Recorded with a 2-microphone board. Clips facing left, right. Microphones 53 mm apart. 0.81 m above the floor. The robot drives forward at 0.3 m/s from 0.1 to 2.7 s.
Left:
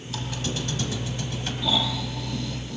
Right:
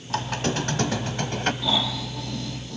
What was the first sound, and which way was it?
A squeak, 55° right (ahead or behind).